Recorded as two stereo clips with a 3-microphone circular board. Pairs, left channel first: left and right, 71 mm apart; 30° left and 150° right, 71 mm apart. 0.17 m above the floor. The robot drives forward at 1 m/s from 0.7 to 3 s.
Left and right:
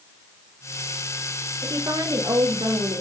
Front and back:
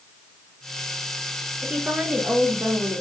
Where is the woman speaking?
75° right, 3 m; by 3.0 s 100° right, 3 m.